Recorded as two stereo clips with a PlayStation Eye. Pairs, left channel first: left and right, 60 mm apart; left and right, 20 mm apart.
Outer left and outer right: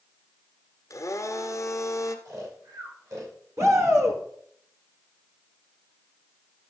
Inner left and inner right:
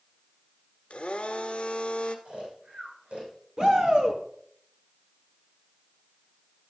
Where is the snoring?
75° right (ahead or behind), 4 m.